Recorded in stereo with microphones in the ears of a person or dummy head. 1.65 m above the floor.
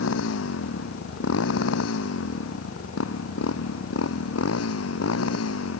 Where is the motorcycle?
80° left; by 5.8 s 85° left.